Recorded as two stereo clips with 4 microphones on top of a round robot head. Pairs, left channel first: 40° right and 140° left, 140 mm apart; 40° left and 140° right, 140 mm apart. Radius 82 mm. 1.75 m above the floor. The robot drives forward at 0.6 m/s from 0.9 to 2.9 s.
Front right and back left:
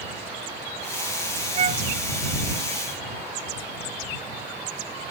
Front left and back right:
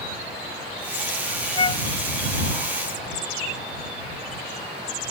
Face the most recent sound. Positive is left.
turn(degrees=100)